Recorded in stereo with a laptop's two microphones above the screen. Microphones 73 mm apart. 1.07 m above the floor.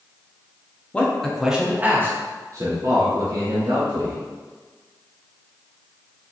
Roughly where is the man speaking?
Centre.